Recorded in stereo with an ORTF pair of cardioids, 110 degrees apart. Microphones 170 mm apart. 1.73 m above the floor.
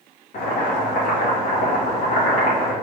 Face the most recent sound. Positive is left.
turn(degrees=70)